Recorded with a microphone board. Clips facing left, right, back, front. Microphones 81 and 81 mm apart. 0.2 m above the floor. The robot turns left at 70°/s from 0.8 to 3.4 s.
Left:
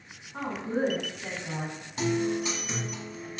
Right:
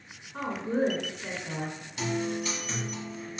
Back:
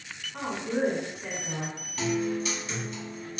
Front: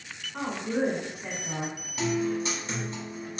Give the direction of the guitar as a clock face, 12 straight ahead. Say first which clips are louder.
Left 4 dB, front 1 dB; 10 o'clock.